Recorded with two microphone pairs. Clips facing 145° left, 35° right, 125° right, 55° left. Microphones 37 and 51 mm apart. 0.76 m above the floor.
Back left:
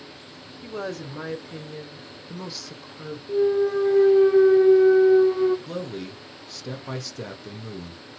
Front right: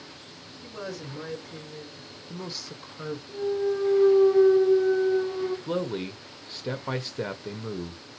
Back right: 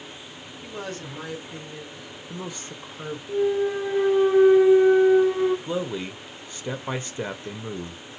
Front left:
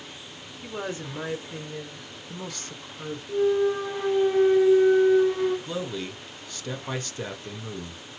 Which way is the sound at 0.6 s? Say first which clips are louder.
Back left 5 dB, front left 2 dB; 125° left.